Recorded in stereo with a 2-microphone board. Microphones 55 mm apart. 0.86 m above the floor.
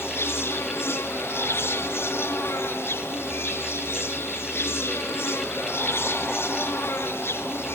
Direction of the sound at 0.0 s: 50° left (ahead or behind).